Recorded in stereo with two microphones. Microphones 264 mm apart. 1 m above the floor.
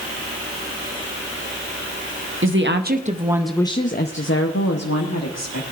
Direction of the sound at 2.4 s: 50° right (ahead or behind).